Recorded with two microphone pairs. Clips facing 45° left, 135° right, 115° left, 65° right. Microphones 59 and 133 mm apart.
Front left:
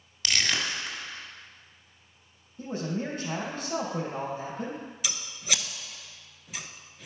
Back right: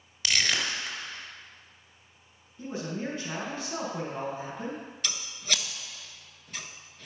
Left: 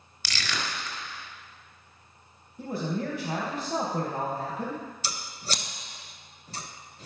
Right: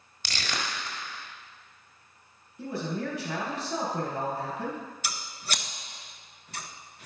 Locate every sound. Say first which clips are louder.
0.2 s crushing: even, even; 50° right, 1.4 m
2.6 s a man speaking: front left 2 dB, left 1 dB; 80° left, 3 m
5.0 s scissors: even, left 1 dB; 120° left, 0.7 m